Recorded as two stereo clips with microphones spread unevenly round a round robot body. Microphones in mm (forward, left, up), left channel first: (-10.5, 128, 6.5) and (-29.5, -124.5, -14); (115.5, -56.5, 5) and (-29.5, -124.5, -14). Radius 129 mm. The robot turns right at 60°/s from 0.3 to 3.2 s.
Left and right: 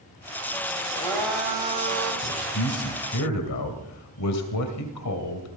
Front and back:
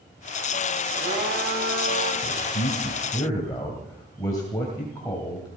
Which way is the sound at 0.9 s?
150° left.